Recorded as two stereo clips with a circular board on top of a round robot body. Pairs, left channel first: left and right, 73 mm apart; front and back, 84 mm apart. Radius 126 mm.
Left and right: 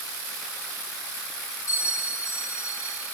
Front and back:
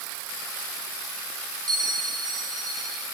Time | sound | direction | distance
1.7 | a bell | 140° left | 8 m